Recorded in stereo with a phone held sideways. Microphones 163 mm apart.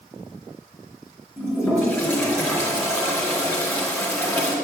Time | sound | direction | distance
1.4 | a toilet flushing | 15° left (ahead or behind) | 3 m